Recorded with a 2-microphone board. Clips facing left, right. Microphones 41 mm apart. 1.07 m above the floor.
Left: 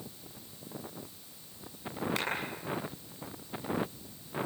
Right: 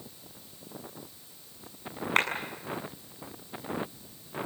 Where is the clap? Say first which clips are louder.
Right 13 dB; 50° right (ahead or behind), 7 m.